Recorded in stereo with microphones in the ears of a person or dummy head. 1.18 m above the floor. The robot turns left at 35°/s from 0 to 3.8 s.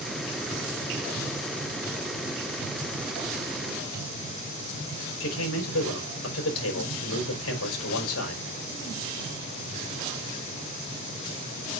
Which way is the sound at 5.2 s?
90° left.